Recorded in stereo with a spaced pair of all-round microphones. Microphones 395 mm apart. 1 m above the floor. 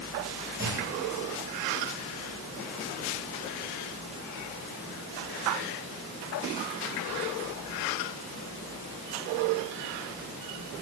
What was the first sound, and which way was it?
A clunk, 25° right (ahead or behind).